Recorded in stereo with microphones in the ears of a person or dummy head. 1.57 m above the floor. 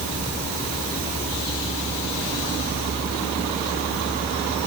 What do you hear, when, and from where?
Only background noise.